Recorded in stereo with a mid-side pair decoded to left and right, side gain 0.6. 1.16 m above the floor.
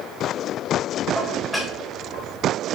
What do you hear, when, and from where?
1.1 s dishes clattering: 5° left, 3 m